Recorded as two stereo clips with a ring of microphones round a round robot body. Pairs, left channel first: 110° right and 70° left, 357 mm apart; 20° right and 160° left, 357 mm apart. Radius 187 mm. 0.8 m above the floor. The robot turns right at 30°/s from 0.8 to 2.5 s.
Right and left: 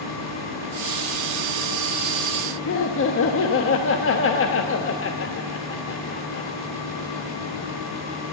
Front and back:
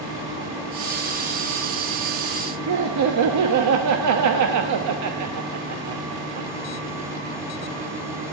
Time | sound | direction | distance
2.7 | laughter | 165° right | 1.1 m